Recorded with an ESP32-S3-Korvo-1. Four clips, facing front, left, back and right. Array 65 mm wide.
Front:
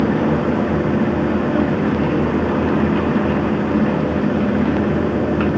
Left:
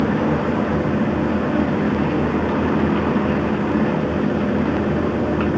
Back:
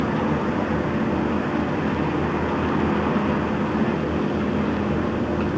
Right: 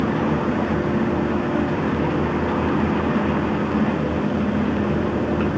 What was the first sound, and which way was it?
Only background noise.